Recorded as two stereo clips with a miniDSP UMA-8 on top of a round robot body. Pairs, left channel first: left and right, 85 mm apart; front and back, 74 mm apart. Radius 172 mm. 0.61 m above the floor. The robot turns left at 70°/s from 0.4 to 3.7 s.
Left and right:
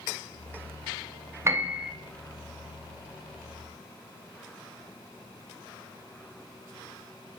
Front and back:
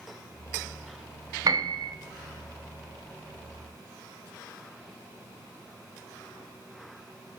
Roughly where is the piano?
Behind right.